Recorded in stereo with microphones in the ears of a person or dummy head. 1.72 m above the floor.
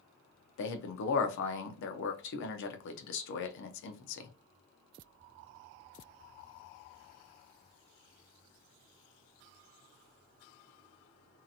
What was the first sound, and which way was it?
A man speaking, 65° left (ahead or behind).